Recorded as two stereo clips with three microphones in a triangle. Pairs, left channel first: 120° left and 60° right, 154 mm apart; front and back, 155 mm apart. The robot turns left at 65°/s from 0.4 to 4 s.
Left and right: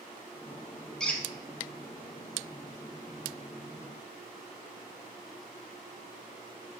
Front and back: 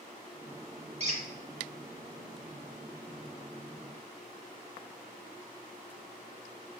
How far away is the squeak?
About 0.7 m.